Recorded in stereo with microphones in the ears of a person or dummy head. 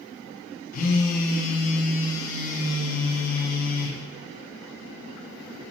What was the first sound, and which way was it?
A phone buzzing, 45° left (ahead or behind).